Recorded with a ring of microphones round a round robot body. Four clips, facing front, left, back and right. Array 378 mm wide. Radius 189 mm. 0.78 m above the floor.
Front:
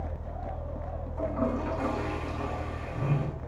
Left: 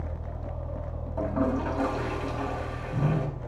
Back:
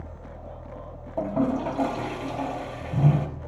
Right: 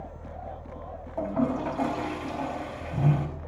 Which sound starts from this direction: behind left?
A toilet flushing, at 1.2 s.